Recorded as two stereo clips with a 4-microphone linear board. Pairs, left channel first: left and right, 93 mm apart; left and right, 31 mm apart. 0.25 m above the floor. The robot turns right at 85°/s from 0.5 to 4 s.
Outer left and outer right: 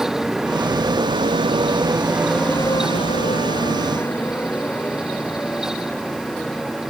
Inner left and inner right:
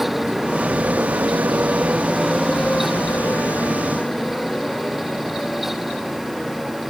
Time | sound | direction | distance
0.0 | a motorcycle | centre (ahead or behind) | ?